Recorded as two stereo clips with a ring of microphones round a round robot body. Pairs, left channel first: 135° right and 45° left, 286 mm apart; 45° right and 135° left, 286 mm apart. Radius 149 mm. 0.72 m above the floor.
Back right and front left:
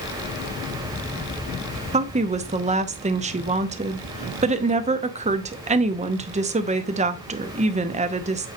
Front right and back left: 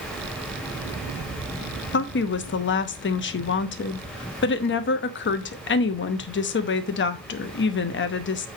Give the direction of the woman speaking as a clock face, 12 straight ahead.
12 o'clock.